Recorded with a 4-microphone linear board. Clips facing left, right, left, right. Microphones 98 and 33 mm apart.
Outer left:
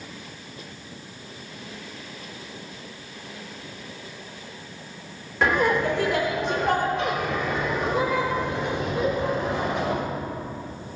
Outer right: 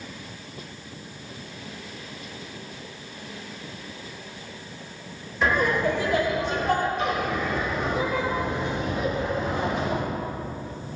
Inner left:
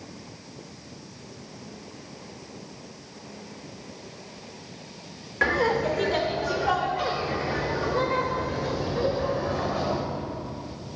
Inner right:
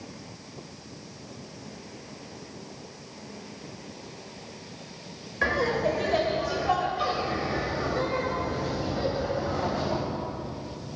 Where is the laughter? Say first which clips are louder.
Outer left 1 dB, inner left 2 dB; 80° left, 4 m; by 10.0 s 75° left (ahead or behind), 6 m.